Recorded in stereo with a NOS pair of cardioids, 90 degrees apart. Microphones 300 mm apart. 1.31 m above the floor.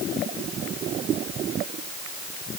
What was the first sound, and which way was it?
Only background noise.